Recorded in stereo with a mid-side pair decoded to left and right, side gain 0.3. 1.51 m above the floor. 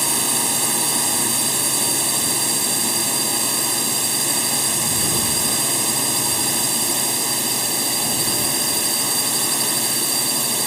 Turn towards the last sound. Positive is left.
turn(degrees=-15)